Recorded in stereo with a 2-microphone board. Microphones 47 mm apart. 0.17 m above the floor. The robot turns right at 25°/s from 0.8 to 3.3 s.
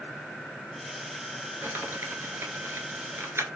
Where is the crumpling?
60° right (ahead or behind), 0.7 m; by 3.5 s 65° right (ahead or behind), 0.7 m.